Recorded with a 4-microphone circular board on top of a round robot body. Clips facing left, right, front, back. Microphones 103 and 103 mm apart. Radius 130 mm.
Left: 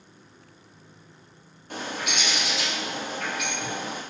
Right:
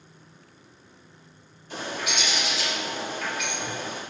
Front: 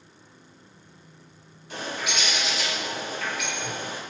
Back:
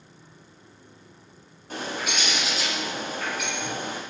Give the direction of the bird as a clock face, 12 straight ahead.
8 o'clock.